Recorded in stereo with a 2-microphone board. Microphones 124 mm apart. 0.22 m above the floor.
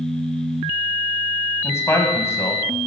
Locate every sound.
1.6 s a man speaking: 20° left (ahead or behind), 1.2 m